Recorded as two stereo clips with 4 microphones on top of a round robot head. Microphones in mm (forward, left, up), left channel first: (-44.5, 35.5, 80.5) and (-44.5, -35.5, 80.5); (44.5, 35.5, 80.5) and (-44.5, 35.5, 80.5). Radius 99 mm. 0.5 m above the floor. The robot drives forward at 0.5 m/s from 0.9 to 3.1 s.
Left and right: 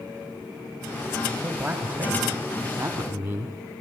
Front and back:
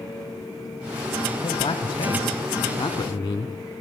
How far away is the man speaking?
About 2.5 m.